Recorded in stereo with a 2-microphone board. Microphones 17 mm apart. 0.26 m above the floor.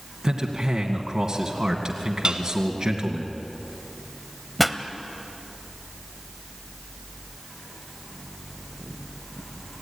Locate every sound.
0.2 s a man speaking: 40° right (ahead or behind), 2 m
2.2 s dishes clattering: 60° right (ahead or behind), 1.5 m
4.6 s a pop: centre (ahead or behind), 1.1 m